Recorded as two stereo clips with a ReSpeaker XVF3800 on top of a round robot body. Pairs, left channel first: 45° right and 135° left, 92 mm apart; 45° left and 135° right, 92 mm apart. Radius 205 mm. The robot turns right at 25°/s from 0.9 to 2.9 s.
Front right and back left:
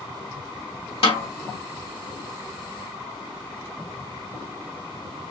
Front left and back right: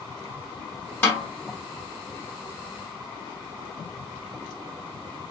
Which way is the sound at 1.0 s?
30° right.